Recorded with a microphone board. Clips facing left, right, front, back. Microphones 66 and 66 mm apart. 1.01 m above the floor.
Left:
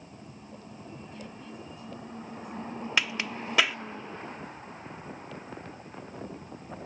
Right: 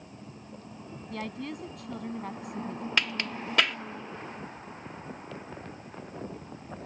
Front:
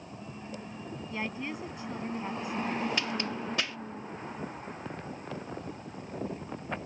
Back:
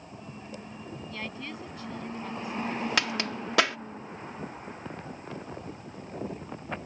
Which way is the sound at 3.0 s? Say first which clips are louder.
Left 1 dB, back 3 dB; 175° left.